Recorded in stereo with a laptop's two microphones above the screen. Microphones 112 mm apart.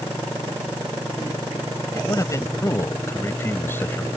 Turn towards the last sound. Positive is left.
turn(degrees=15)  # may be behind; listen again after turning